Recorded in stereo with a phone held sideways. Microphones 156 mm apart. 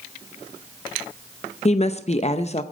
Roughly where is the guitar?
I don't hear a guitar.